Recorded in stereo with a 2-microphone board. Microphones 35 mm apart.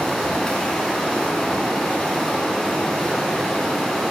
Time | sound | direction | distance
0.0 | running water | 15° left (ahead or behind) | 0.7 m